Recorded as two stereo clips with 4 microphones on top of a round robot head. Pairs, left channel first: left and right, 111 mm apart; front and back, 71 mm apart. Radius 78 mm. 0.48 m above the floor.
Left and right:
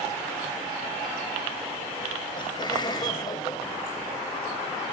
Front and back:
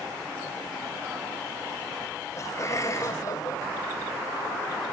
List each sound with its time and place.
2.4 s laughter: 45° left, 3 m; by 4.3 s 30° left, 2 m